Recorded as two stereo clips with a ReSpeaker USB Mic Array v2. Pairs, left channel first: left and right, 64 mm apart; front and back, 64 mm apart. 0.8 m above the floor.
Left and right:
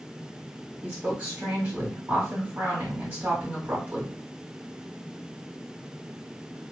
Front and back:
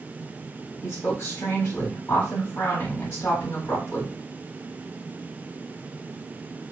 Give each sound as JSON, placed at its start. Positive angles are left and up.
{"t": 0.8, "sound": "a woman speaking", "azimuth_deg": -35, "distance_m": 1.6}